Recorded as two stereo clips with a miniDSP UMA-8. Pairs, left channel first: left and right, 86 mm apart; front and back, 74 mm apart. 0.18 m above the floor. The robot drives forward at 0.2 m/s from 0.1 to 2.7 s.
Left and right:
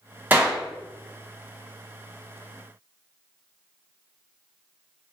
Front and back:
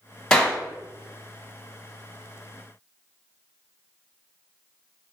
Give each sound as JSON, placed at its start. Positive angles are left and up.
{"t": 0.3, "sound": "a clap", "azimuth_deg": -60, "distance_m": 1.3}